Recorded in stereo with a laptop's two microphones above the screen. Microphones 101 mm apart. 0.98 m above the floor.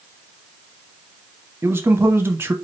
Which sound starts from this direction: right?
A man speaking, at 1.6 s.